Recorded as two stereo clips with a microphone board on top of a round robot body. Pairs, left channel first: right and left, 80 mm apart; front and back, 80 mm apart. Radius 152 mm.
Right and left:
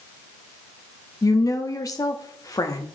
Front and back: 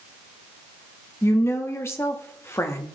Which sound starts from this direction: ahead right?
A woman speaking, at 1.2 s.